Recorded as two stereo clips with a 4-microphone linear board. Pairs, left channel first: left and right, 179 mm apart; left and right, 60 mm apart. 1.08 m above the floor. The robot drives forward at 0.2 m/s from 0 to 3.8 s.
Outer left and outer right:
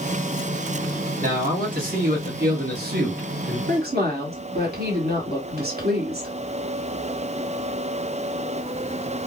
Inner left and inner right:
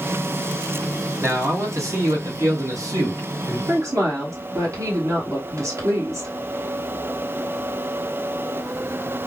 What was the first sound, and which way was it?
A man speaking, 50° right (ahead or behind).